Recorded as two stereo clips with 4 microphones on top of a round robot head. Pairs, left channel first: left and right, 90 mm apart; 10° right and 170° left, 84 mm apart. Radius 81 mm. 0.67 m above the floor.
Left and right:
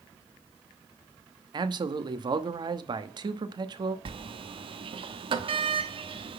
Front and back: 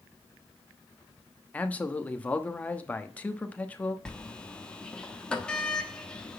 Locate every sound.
1.5 s a man speaking: 80° right, 1.0 m
4.0 s a sliding door: 90° right, 1.0 m